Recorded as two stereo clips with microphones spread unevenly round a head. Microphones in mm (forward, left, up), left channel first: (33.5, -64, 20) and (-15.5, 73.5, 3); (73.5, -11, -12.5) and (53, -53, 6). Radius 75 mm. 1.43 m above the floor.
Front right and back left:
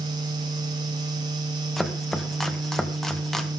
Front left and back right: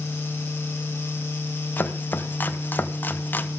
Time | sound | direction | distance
1.8 | chopping | 15° left | 1.6 m